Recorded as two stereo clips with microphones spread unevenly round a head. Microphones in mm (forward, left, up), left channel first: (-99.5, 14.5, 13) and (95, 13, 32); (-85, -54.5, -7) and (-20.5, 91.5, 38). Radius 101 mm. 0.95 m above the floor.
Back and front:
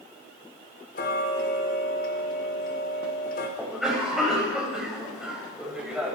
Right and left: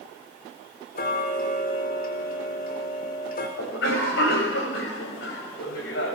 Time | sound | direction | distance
0.9 | ticking | 135° right | 4 m
3.6 | a cough | 90° right | 6.5 m